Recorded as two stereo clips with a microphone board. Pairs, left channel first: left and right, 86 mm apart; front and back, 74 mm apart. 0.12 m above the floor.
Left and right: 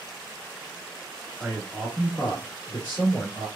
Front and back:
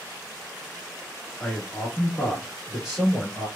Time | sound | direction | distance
1.4 | a man speaking | 50° right | 1.3 m